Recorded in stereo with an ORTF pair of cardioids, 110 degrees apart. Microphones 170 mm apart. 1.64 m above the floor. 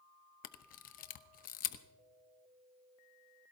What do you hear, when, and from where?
0.4 s a camera shutter: 55° left, 0.9 m